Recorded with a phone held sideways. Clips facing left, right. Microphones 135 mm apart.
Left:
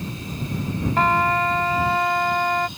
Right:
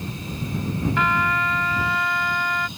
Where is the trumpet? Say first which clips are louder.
Left 6 dB; 40° left (ahead or behind).